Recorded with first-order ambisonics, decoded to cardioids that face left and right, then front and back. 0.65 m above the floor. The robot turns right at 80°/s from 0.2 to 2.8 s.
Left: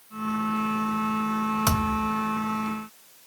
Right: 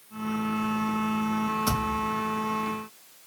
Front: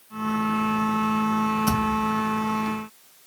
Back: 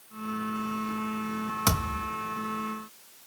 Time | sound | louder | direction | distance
1.7 | a thud | left 2 dB, front 5 dB | 150° left | 2 m